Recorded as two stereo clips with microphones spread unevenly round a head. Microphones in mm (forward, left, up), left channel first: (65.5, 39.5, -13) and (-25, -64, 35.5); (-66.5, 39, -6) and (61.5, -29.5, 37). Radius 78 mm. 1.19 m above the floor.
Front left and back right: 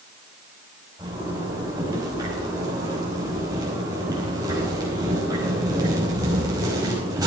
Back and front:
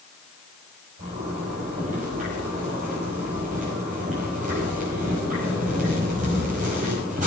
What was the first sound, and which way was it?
A zipper, 70° right.